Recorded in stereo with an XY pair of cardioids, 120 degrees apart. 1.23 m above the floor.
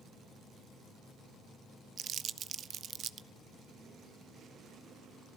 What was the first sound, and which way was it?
Crumpling, 50° right.